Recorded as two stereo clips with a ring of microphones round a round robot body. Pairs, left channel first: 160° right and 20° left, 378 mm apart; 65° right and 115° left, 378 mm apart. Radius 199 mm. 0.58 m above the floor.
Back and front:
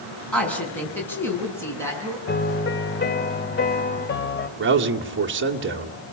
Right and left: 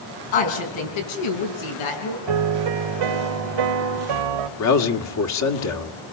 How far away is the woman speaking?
About 6.5 m.